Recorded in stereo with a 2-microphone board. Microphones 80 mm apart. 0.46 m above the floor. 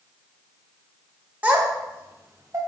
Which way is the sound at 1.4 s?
20° right (ahead or behind).